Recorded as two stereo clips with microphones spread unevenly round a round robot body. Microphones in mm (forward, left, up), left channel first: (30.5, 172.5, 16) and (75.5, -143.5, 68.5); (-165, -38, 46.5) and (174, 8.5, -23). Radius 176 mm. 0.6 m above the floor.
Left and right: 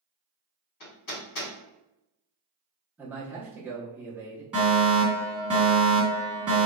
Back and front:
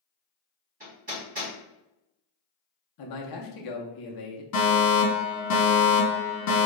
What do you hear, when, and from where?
0.8 s hammering: 75° left, 1.8 m
3.0 s a man speaking: 175° right, 0.7 m
4.5 s a fire alarm: straight behind, 1.8 m